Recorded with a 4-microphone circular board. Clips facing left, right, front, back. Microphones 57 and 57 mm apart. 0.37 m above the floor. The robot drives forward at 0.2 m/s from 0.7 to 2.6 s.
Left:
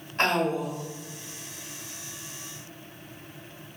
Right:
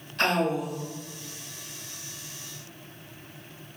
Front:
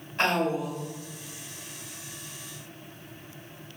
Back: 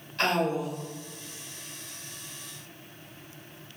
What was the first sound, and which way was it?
A woman speaking, 60° left.